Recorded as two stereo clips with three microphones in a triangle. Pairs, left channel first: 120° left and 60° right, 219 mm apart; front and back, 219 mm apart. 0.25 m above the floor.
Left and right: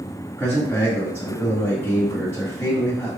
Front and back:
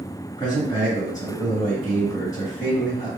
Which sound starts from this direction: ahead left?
A man speaking, at 0.4 s.